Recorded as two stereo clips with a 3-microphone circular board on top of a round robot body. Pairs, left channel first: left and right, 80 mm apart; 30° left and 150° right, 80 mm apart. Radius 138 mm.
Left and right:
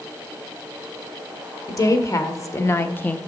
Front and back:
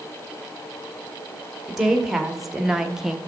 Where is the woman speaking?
125° left, 1.8 m; by 3.2 s 130° left, 1.0 m.